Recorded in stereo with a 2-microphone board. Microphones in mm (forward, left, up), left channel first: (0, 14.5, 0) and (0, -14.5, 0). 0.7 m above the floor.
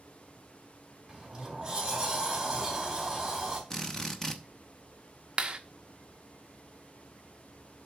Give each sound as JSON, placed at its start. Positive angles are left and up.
{"t": 1.1, "sound": "a sliding door", "side_deg": -10, "distance_m": 3.0}
{"t": 3.7, "sound": "a drill", "side_deg": 15, "distance_m": 0.9}
{"t": 5.4, "sound": "a clap", "side_deg": -30, "distance_m": 0.7}